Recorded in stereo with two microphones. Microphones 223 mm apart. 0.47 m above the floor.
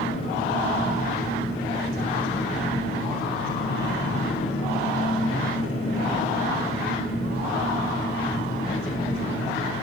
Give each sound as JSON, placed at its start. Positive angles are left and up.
{"t": 0.0, "sound": "an engine running", "side_deg": 75, "distance_m": 8.0}